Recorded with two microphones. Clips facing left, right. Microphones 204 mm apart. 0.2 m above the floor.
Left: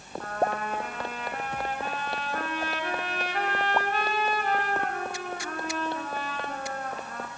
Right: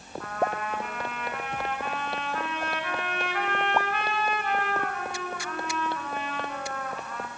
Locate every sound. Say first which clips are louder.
0.2 s a trumpet: left 1 dB; 40° left (ahead or behind), 1.9 m